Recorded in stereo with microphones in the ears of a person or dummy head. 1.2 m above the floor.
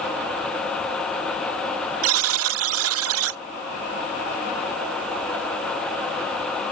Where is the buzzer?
75° right (ahead or behind).